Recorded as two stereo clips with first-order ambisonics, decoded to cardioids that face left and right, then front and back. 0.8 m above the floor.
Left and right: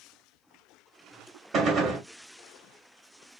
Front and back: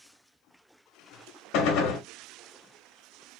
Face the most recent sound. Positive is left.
turn(degrees=-30)